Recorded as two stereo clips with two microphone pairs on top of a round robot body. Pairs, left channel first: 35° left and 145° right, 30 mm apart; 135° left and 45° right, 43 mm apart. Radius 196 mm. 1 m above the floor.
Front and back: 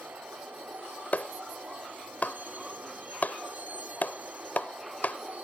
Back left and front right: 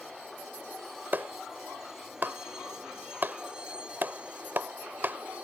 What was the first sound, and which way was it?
A vehicle, 135° right.